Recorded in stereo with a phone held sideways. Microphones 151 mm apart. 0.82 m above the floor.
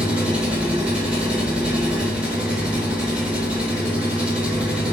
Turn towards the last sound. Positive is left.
turn(degrees=-5)  # may be behind; listen again after turning